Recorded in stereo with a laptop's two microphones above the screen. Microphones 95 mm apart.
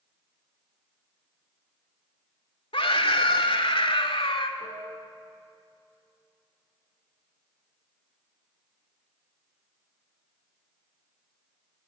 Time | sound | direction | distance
2.7 | a scream | 70° left (ahead or behind) | 2.5 m
4.6 | a piano | 75° left (ahead or behind) | 3.5 m